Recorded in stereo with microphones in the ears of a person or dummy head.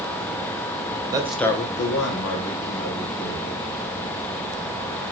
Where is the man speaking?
20° right (ahead or behind), 0.6 m; by 3.6 s 80° left, 2 m.